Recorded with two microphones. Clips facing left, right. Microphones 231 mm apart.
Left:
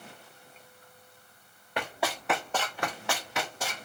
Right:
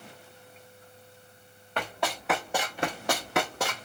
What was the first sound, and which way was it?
Running footsteps, 10° left (ahead or behind).